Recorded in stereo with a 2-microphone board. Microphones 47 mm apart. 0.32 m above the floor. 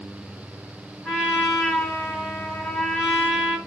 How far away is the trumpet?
About 1.9 m.